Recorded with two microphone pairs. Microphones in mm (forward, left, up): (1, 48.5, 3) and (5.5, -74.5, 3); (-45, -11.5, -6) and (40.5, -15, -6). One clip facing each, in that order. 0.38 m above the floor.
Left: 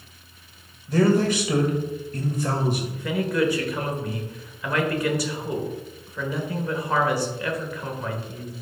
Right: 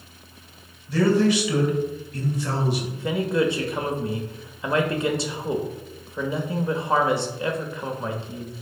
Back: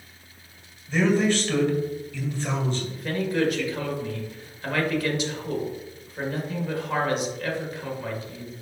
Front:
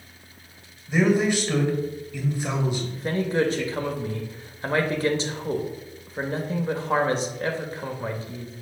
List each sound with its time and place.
0.9 s a man speaking: 70° left, 1.6 m
3.0 s a man speaking: 40° right, 1.0 m